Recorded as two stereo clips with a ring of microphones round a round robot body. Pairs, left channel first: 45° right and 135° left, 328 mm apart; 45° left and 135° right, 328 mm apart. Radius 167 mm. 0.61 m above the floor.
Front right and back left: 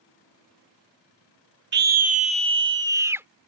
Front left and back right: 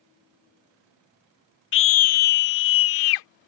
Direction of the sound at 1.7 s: 85° left.